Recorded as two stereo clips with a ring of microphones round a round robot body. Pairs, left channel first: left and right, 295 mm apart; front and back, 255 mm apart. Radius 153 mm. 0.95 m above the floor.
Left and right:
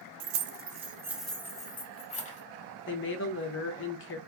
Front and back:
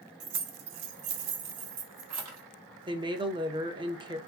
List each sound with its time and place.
0.2 s keys jangling: 125° right, 0.6 m; by 2.4 s 155° left, 1.1 m
2.9 s a woman speaking: 115° left, 0.8 m